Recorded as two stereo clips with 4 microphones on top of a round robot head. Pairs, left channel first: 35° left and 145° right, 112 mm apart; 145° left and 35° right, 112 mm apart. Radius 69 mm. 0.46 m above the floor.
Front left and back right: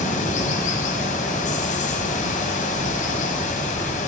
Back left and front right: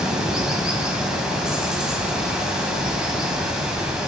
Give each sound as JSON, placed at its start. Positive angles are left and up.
{"t": 0.0, "sound": "running water", "azimuth_deg": 50, "distance_m": 1.3}